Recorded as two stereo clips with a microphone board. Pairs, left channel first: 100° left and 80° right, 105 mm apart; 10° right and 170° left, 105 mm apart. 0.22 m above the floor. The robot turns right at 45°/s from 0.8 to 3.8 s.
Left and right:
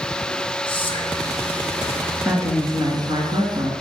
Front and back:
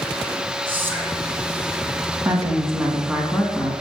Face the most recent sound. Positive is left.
turn(degrees=-75)